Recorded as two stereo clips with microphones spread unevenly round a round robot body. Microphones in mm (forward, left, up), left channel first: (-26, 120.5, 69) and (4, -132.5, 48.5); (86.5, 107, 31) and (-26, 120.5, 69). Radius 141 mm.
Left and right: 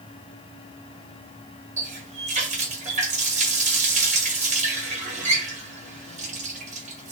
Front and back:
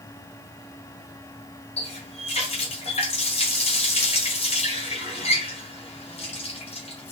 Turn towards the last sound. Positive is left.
turn(degrees=-20)